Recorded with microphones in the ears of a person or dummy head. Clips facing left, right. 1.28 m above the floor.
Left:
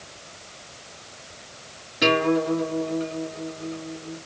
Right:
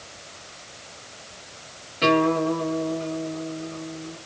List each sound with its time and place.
2.0 s a guitar: 15° left (ahead or behind), 5.5 m